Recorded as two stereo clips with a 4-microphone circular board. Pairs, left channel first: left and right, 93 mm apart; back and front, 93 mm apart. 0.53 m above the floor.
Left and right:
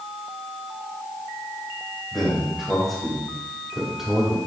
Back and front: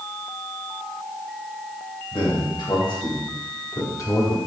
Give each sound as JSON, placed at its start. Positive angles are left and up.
{"t": 2.1, "sound": "a man speaking", "azimuth_deg": 180, "distance_m": 3.0}